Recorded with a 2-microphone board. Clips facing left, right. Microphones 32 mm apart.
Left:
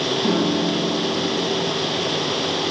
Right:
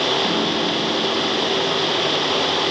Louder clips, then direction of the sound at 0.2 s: Even; 15° left (ahead or behind).